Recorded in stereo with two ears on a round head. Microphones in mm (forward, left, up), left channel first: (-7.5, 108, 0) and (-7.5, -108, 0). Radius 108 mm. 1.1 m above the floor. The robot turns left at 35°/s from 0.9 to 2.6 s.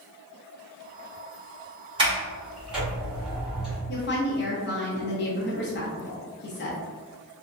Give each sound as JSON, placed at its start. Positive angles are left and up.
{"t": 2.0, "sound": "a sliding door", "side_deg": -20, "distance_m": 1.8}
{"t": 3.9, "sound": "a woman speaking", "side_deg": 45, "distance_m": 0.8}